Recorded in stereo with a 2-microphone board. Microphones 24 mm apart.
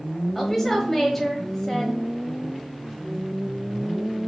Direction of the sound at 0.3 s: 15° left (ahead or behind).